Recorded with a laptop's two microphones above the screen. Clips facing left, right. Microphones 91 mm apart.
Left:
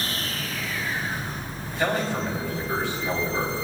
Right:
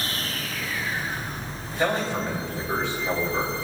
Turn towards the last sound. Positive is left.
turn(degrees=-20)  # may be behind; listen again after turning